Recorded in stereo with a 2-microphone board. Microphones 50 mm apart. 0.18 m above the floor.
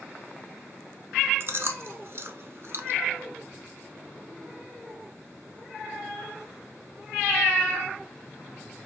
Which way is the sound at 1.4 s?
55° right (ahead or behind).